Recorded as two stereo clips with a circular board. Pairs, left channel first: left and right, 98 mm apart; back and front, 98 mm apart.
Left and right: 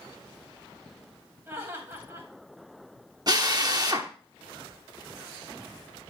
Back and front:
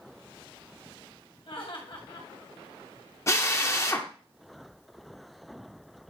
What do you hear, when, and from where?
1.5 s laughter: 155° right, 3.5 m
3.3 s a drill: 125° right, 1.1 m